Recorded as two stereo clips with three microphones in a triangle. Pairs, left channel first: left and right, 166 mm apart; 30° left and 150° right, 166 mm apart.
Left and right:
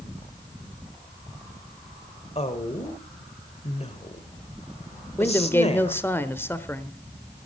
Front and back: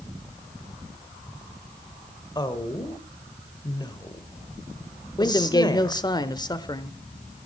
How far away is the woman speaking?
About 1.6 m.